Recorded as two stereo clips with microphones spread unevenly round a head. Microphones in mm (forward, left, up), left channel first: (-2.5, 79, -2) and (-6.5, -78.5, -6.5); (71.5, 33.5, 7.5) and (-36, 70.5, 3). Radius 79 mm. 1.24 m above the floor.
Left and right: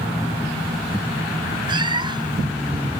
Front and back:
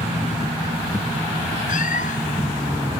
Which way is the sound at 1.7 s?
25° right.